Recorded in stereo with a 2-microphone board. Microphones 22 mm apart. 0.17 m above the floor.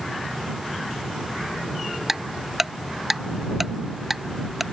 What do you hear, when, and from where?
2.1 s ticking: 10° right (ahead or behind)